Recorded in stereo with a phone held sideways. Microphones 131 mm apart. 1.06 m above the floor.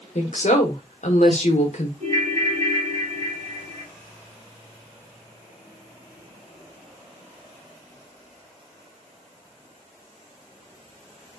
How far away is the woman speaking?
About 1.0 m.